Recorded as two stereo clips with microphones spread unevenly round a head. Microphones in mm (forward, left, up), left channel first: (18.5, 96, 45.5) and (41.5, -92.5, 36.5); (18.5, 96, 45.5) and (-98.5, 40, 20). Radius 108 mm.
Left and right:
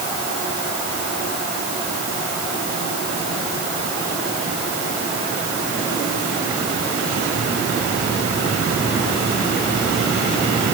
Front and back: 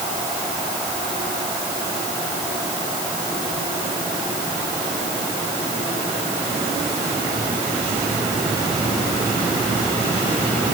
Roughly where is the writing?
No writing in this recording.